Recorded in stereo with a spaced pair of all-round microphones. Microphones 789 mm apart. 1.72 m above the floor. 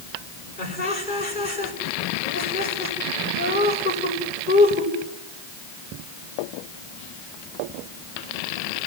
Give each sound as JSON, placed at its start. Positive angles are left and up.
{"t": 0.6, "sound": "laughter", "side_deg": 90, "distance_m": 8.5}